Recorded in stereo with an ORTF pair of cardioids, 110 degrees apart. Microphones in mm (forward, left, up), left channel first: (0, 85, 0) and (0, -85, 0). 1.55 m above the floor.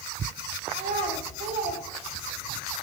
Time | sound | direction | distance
0.7 | a child speaking | 40° right | 4 m